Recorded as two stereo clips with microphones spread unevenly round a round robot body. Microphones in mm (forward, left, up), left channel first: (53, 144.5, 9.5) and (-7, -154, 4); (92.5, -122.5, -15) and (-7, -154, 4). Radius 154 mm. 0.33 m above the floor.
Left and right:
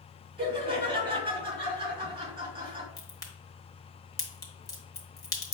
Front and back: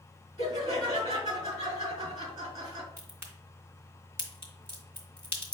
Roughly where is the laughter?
Behind.